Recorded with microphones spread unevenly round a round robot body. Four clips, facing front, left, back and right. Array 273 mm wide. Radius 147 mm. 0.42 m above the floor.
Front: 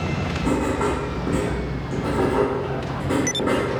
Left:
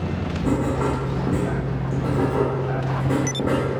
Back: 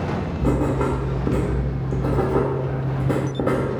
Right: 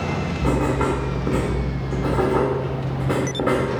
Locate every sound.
0.4 s writing: 155° right, 0.7 m